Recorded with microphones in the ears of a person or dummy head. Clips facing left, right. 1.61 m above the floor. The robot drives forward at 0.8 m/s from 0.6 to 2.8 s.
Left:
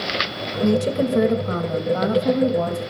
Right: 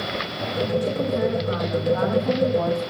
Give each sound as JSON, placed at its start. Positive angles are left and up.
{"t": 0.6, "sound": "a woman speaking", "side_deg": 75, "distance_m": 1.7}